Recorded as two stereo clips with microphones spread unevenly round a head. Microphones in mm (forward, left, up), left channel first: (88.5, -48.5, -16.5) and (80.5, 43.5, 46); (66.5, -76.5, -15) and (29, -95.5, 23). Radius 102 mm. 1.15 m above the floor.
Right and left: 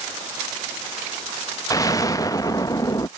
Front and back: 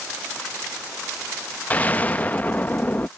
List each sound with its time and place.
1.7 s an explosion: 30° right